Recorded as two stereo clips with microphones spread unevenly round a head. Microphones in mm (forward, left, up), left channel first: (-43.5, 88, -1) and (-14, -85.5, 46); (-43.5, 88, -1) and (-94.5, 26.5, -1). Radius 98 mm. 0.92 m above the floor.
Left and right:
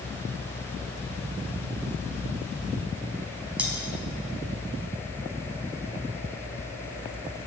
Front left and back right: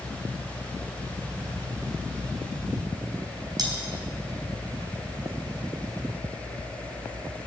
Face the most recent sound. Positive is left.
turn(degrees=-160)